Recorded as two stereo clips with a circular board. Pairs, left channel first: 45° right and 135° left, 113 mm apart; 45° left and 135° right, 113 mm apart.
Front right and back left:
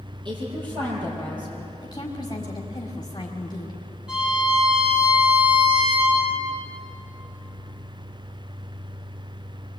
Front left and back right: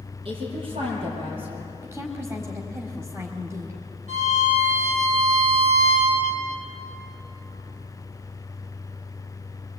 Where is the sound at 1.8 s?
80° right, 1.9 m.